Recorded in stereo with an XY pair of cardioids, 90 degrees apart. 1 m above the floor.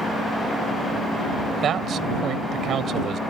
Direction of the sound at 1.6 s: 70° right.